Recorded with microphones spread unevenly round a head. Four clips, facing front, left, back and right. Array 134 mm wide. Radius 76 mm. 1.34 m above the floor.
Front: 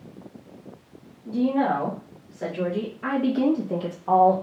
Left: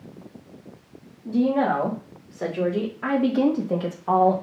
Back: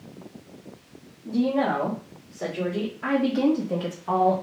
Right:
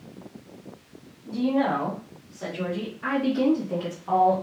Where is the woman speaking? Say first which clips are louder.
Left 3 dB, front 1 dB; 85° left, 3.5 m; by 4.3 s 40° left, 1.7 m.